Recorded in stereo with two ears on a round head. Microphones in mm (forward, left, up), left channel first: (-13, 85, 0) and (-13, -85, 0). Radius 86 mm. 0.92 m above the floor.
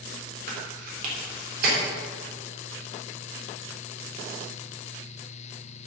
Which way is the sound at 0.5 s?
50° right (ahead or behind).